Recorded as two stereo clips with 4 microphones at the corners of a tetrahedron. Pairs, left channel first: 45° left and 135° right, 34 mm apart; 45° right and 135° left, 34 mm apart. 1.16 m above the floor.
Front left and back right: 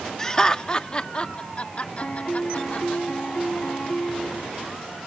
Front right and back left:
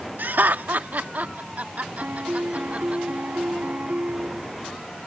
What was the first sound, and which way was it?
Laughter, 115° left.